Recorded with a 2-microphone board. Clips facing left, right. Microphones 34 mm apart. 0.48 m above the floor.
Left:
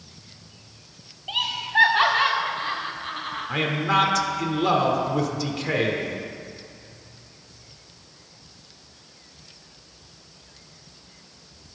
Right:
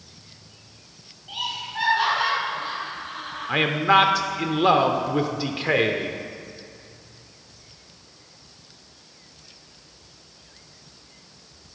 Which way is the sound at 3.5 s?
25° right (ahead or behind).